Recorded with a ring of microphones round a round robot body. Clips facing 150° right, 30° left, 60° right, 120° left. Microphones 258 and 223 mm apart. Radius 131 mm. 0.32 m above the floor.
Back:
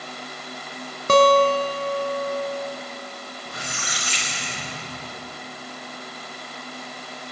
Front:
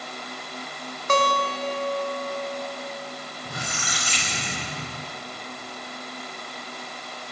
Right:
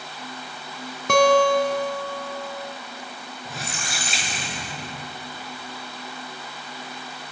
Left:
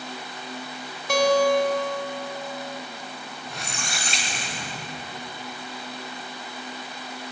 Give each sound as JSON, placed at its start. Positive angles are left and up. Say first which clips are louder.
{"t": 1.1, "sound": "a guitar", "louder": "back 9 dB, right 2 dB", "azimuth_deg": -100, "distance_m": 1.4}
{"t": 3.5, "sound": "a squeak", "louder": "front 3 dB, right 2 dB", "azimuth_deg": 30, "distance_m": 4.5}